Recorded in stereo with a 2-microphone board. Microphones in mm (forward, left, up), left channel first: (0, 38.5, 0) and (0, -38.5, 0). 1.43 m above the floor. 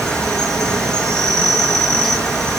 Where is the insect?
5° left (ahead or behind), 1.4 m.